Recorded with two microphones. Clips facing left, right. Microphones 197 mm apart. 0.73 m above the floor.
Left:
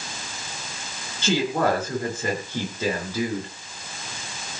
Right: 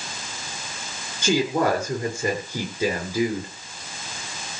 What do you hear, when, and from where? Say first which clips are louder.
1.2 s a woman speaking: right 1 dB; 15° right (ahead or behind), 7.5 m; by 3.5 s 10° right (ahead or behind), 9 m